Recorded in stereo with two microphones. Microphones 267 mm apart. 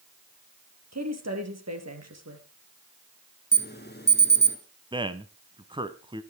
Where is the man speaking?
20° right (ahead or behind), 1.0 m.